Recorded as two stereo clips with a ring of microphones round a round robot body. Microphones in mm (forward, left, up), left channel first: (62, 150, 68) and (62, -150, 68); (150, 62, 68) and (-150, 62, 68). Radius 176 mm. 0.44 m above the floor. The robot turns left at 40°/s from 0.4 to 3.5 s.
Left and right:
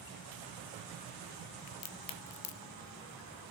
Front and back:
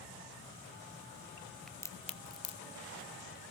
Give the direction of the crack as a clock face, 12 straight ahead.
9 o'clock.